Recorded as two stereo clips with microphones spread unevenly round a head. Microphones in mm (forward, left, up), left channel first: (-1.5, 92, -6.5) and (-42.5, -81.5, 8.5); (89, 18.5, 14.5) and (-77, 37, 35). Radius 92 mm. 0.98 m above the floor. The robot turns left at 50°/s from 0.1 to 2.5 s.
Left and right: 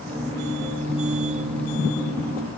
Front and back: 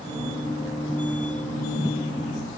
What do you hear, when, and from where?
Only background noise.